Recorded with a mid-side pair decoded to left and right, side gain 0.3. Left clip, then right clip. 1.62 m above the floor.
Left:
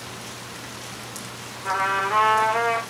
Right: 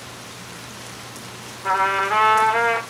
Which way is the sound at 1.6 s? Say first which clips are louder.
Right 3 dB; 70° right.